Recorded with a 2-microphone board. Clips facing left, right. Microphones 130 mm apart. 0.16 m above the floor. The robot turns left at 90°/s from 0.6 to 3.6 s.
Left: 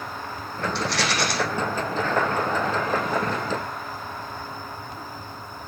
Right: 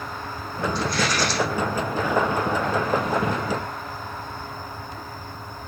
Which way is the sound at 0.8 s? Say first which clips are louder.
Right 1 dB; 105° left.